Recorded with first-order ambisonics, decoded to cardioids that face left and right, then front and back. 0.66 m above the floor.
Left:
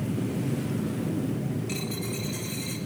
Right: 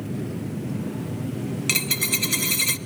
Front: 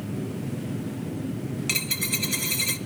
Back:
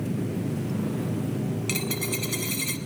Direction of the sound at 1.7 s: 80° right.